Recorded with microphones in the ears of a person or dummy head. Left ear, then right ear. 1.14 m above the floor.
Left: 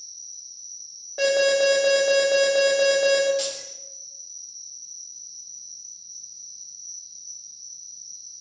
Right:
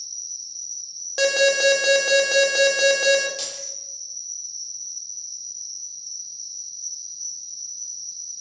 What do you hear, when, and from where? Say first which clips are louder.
0.0 s an insect: right 7 dB; 60° right (ahead or behind), 1.2 m
1.2 s an alarm: right 1 dB; 70° right (ahead or behind), 2 m
3.4 s keys jangling: left 1 dB; 30° right (ahead or behind), 2.5 m